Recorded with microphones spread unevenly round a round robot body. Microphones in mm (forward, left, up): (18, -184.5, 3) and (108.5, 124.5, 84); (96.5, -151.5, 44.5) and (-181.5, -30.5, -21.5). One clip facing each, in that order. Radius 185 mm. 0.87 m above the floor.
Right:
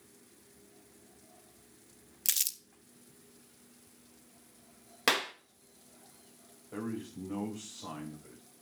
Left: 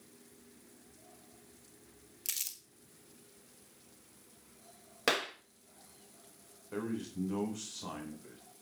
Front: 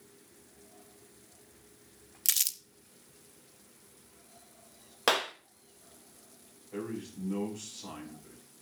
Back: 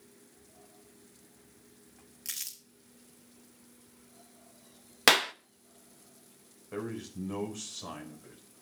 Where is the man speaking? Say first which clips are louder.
Left 1 dB, even; 135° left, 4 m.